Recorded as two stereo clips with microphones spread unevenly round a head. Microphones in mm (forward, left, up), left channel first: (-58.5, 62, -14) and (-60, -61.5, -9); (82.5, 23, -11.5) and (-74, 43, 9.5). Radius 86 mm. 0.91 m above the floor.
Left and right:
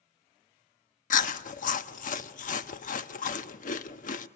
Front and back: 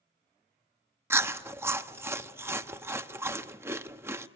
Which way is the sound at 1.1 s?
95° left.